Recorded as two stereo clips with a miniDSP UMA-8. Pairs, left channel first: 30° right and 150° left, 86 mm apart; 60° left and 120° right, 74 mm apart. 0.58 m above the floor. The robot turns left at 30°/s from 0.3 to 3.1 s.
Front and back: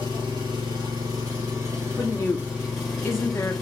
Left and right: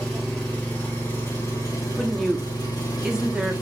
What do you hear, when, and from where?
0.0 s an engine running: 140° left, 1.9 m; by 3.6 s 55° left, 1.9 m
2.0 s a woman speaking: 15° right, 0.9 m; by 3.5 s 50° right, 0.9 m